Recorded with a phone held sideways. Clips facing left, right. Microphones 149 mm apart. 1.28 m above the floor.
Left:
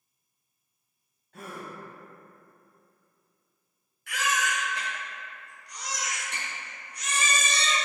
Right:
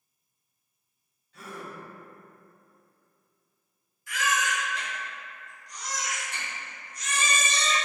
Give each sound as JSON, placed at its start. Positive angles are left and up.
{"t": 1.3, "sound": "a gasp", "side_deg": 50, "distance_m": 0.7}
{"t": 4.1, "sound": "a baby crying", "side_deg": 65, "distance_m": 1.0}